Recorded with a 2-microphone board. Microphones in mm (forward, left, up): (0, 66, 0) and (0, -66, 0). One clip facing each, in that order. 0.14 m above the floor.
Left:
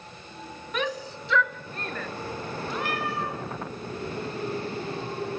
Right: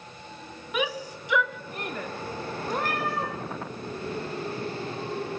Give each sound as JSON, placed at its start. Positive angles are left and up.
{"t": 0.7, "sound": "a shout", "side_deg": -10, "distance_m": 1.1}
{"t": 2.7, "sound": "a cat meowing", "side_deg": -45, "distance_m": 6.5}